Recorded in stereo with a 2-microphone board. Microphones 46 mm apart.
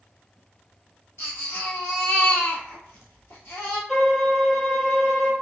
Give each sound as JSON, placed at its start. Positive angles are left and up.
{"t": 1.2, "sound": "a baby crying", "side_deg": 65, "distance_m": 1.8}
{"t": 3.9, "sound": "a violin", "side_deg": 0, "distance_m": 1.1}